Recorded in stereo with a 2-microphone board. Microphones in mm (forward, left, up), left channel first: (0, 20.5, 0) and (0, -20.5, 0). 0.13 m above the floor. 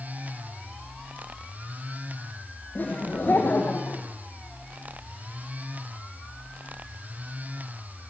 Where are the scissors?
No scissors in this recording.